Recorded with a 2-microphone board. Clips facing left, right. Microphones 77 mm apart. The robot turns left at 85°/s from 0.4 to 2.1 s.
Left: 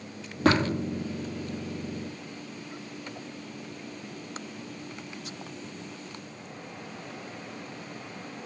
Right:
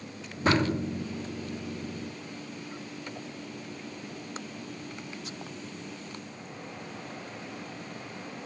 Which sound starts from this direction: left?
Tapping, at 0.5 s.